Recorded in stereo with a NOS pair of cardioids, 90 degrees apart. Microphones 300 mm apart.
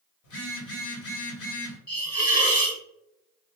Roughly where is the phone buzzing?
Ahead left.